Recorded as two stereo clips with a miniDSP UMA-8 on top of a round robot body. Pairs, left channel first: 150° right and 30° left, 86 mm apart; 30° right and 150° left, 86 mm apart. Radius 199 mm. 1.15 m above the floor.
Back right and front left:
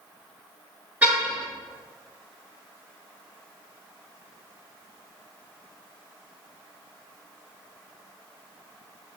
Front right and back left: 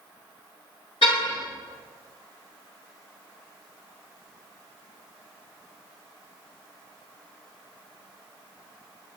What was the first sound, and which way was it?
A car horn, 45° right.